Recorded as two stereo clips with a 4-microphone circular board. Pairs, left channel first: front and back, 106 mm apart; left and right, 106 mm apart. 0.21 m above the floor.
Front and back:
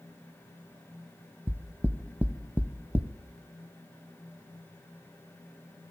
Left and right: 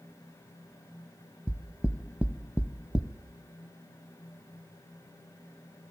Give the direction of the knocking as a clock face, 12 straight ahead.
5 o'clock.